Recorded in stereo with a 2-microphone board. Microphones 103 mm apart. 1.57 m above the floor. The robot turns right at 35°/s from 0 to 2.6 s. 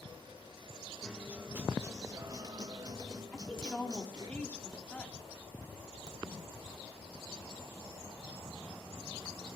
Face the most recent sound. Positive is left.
turn(degrees=-40)  # may be behind; listen again after turning